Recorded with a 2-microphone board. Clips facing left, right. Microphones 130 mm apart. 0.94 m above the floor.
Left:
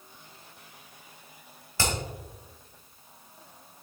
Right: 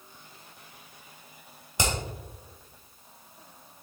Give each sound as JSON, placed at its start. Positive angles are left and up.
{"t": 1.8, "sound": "hammering", "side_deg": -20, "distance_m": 2.0}